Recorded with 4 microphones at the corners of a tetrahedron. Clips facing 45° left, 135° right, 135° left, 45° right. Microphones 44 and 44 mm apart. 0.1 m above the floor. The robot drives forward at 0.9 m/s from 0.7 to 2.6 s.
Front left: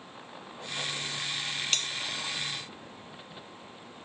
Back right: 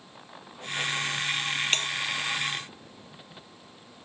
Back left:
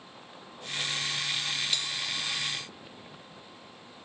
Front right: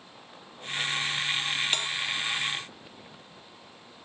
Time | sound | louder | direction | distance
1.7 | a bell | back right 3 dB, front right 3 dB | 85° right | ?